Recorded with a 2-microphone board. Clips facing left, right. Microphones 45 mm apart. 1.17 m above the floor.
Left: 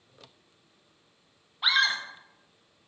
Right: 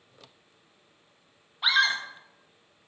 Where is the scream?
Centre (ahead or behind), 0.6 m.